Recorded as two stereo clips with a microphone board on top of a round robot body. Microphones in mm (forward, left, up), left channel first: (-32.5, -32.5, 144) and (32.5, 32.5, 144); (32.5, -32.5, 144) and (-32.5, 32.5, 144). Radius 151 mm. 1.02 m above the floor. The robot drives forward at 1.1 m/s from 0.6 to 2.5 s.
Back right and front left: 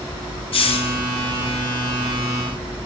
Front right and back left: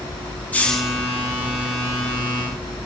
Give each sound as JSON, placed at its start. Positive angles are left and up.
{"t": 0.5, "sound": "a hiss", "azimuth_deg": -120, "distance_m": 0.6}